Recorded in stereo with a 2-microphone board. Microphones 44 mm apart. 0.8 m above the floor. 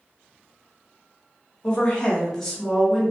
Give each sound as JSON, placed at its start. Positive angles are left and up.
{"t": 1.6, "sound": "a woman speaking", "side_deg": 20, "distance_m": 1.1}